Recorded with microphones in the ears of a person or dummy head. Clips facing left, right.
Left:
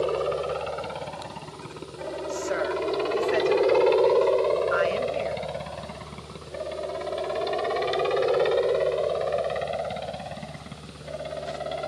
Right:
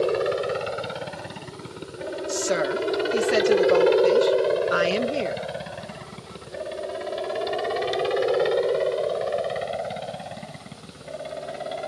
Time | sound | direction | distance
0.0 | a helicopter | 25° right (ahead or behind) | ?
2.3 | a woman speaking | 50° right (ahead or behind) | ?